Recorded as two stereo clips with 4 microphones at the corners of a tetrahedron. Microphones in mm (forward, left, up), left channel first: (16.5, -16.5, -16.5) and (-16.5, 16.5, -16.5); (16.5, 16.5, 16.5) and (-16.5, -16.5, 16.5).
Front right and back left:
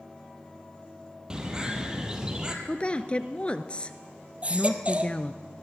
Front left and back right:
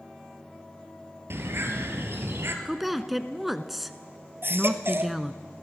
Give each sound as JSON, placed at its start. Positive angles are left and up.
{"t": 1.3, "sound": "a bird", "azimuth_deg": -155, "distance_m": 2.5}
{"t": 2.6, "sound": "a woman speaking", "azimuth_deg": -55, "distance_m": 1.2}
{"t": 4.4, "sound": "a baby crying", "azimuth_deg": -165, "distance_m": 1.4}